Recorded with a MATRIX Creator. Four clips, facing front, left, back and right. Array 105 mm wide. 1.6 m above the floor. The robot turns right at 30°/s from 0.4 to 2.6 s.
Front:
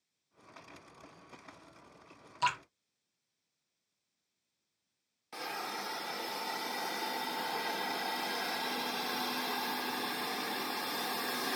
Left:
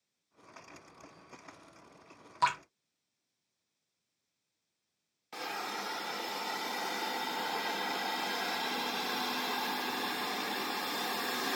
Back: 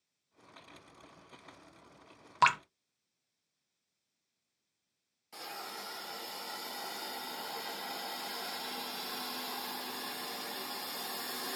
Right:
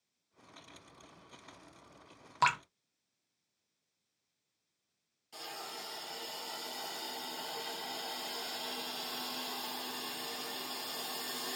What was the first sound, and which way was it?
Dripping, 170° right.